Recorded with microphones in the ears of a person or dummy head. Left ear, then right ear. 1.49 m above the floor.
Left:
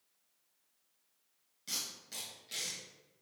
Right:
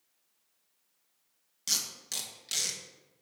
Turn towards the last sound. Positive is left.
turn(degrees=-35)  # may be behind; listen again after turning